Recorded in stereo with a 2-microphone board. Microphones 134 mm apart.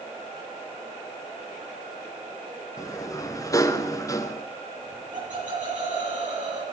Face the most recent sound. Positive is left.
turn(degrees=-70)  # may be behind; listen again after turning